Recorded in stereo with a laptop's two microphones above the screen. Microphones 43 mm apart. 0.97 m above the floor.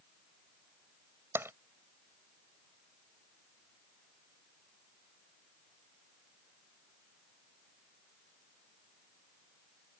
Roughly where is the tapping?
Right.